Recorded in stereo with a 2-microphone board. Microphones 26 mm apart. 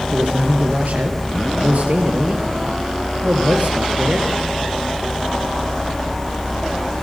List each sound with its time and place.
0.1 s a man speaking: 70° right (ahead or behind), 4.5 m